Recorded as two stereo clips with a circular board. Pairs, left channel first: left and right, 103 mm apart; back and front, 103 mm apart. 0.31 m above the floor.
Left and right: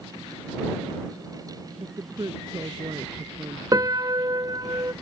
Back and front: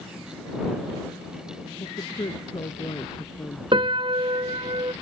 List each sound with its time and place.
1.8 s a woman speaking: 140° right
3.7 s a piano: 35° right